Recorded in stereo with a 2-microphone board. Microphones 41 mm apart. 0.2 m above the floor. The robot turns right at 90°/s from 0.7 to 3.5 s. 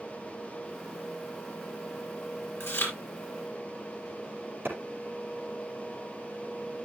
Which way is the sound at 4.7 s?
70° right (ahead or behind).